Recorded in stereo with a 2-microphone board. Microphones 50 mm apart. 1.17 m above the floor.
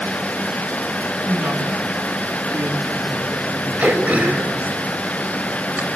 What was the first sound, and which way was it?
A woman speaking, 50° right (ahead or behind).